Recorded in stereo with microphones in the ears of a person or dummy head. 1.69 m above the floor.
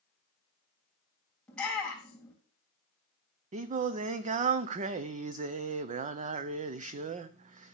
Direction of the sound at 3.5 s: 40° right (ahead or behind).